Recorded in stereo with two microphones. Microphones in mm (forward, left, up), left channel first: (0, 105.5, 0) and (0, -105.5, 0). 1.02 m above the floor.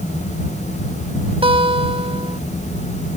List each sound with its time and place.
1.4 s a guitar: 25° right (ahead or behind)